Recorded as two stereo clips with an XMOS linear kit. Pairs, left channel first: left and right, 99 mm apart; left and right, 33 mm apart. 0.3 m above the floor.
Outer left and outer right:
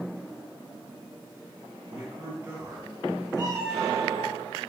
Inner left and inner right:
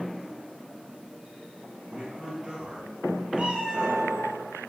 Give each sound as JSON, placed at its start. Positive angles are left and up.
{"t": 1.9, "sound": "a man speaking", "side_deg": -25, "distance_m": 1.8}
{"t": 3.3, "sound": "a cat meowing", "side_deg": -35, "distance_m": 2.0}